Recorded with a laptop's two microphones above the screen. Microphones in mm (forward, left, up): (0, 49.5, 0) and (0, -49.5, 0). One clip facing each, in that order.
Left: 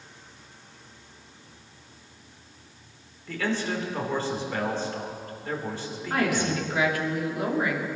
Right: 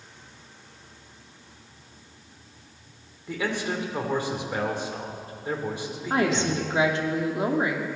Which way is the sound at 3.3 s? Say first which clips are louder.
Even; 15° right (ahead or behind).